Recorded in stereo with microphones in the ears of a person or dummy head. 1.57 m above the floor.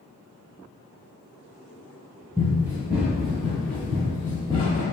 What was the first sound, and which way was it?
Running footsteps, 15° right (ahead or behind).